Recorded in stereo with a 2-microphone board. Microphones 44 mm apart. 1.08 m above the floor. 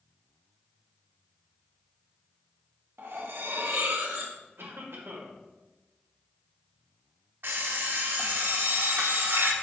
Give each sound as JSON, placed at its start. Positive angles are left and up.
{"t": 3.0, "sound": "cutlery clinking", "side_deg": -65, "distance_m": 0.9}
{"t": 4.6, "sound": "a cough", "side_deg": -70, "distance_m": 1.2}
{"t": 7.4, "sound": "an alarm clock", "side_deg": -55, "distance_m": 0.9}